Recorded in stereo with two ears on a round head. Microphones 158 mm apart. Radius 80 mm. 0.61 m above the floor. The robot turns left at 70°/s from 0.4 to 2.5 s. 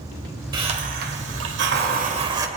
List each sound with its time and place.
0.5 s a hiss: 25° right, 1.6 m; by 2.5 s 160° right, 1.6 m